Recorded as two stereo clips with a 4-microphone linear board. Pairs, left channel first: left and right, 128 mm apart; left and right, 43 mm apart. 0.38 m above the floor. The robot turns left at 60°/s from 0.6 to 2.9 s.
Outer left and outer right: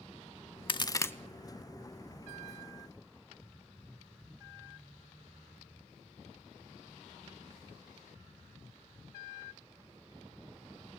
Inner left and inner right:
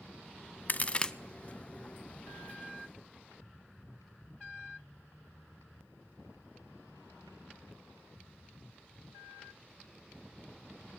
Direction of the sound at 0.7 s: 40° left (ahead or behind).